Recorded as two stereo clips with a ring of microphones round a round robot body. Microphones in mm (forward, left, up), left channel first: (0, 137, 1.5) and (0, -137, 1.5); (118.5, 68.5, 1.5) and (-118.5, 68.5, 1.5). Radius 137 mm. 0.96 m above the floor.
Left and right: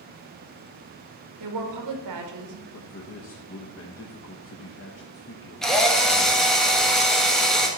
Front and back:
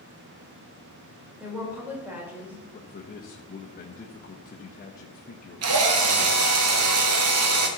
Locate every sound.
1.4 s a woman speaking: 95° right, 1.9 m
2.7 s a man speaking: 50° left, 1.0 m
5.6 s a drill: straight behind, 1.4 m